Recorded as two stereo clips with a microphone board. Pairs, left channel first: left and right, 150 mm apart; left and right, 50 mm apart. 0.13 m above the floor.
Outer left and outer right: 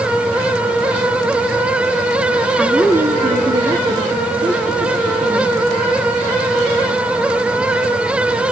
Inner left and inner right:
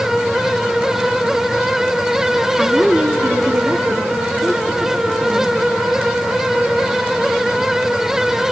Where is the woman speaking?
5° left (ahead or behind), 1.1 m; by 5.5 s 40° right (ahead or behind), 4 m.